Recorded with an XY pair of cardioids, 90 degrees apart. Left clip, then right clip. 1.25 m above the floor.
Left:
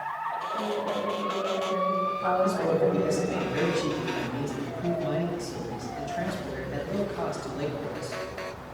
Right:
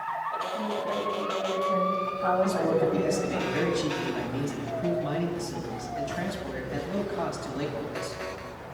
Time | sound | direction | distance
0.5 | a woman speaking | 10° left | 8 m
2.4 | a man speaking | 10° right | 8 m